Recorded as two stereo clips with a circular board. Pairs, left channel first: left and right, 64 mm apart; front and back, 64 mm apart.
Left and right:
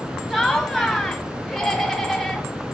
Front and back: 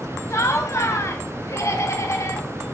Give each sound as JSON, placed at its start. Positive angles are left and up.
{"t": 0.3, "sound": "laughter", "azimuth_deg": 0, "distance_m": 2.5}